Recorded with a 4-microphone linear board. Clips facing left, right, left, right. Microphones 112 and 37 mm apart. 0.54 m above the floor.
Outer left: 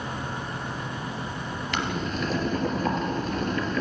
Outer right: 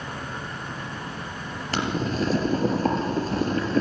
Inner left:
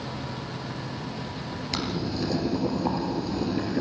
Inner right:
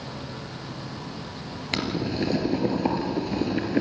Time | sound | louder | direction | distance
1.7 | boiling | outer right 4 dB, inner right 3 dB | 35° right (ahead or behind) | 3 m